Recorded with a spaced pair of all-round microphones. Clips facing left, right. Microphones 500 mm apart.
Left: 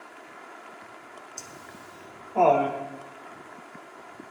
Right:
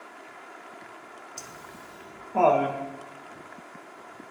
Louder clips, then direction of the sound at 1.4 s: Even; 75° right (ahead or behind).